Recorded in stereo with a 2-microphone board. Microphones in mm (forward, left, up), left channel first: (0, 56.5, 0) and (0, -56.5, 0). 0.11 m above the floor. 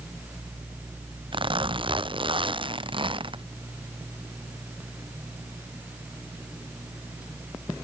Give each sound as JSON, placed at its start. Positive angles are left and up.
{"t": 1.3, "sound": "a zipper", "side_deg": -50}